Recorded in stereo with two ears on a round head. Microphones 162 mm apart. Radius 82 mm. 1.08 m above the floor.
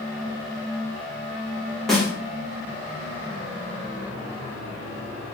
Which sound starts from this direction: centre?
A snare drum, at 1.9 s.